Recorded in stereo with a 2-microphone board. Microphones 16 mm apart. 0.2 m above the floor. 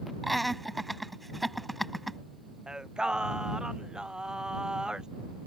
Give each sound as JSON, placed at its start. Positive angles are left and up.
{"t": 0.2, "sound": "laughter", "side_deg": 5}
{"t": 2.7, "sound": "singing", "side_deg": -65}